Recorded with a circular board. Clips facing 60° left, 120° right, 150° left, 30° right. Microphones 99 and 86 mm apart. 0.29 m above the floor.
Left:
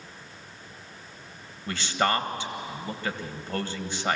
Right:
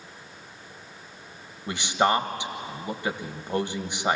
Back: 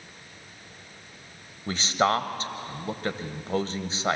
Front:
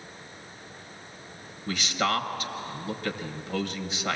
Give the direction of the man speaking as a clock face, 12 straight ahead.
6 o'clock.